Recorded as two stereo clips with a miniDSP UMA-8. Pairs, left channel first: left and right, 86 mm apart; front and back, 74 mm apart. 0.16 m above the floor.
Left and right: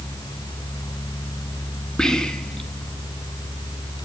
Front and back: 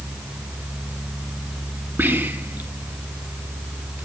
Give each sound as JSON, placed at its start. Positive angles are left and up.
{"t": 2.0, "sound": "whispering", "azimuth_deg": 165, "distance_m": 1.5}